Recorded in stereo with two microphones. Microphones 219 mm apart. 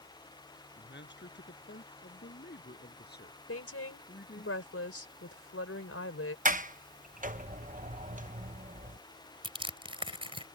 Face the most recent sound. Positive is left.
turn(degrees=-25)  # may be behind; listen again after turning